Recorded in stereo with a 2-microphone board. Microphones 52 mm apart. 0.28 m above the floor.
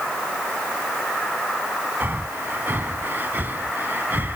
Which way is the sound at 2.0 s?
40° right (ahead or behind).